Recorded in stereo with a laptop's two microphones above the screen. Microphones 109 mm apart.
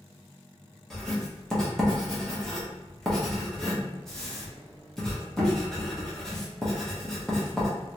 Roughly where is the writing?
Centre.